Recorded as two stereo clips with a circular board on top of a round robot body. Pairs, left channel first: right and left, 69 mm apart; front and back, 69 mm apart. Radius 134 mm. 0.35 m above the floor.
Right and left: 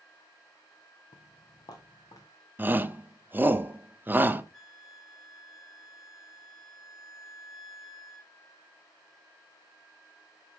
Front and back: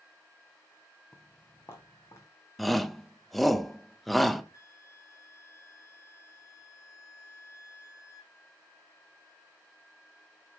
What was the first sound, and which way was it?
Footsteps, 75° right.